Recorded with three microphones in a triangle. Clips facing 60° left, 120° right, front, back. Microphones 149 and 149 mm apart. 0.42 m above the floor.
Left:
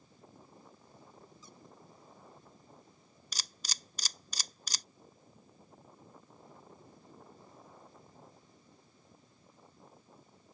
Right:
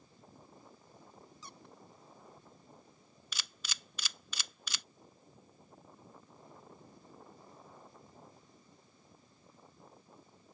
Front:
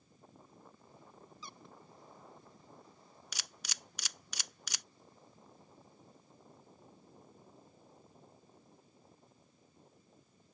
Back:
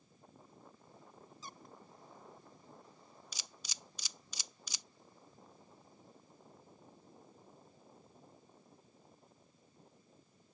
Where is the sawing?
No sawing in this recording.